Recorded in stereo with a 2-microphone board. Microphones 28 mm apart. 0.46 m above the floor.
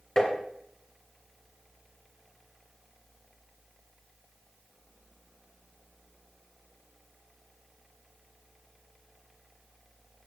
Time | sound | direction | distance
0.2 | tapping | 30° left (ahead or behind) | 2.5 m